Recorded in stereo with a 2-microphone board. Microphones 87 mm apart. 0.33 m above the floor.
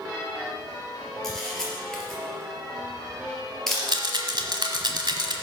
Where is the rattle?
60° right (ahead or behind), 1.3 m.